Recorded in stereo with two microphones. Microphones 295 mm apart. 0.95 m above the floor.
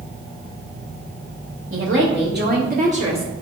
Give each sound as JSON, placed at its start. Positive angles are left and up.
{"t": 1.7, "sound": "a woman speaking", "side_deg": -45, "distance_m": 2.5}